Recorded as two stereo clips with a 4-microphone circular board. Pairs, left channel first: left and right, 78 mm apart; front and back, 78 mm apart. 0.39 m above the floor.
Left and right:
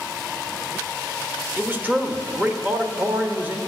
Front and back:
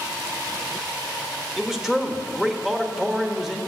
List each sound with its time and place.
1.6 s a man speaking: 105° right, 0.8 m